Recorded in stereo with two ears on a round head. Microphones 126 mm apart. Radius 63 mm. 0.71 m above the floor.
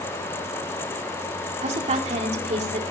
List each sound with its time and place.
1.6 s a woman speaking: 45° right (ahead or behind), 1.9 m